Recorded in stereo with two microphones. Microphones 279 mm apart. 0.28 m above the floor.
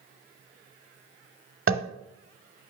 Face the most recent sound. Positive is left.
turn(degrees=-50)  # may be behind; listen again after turning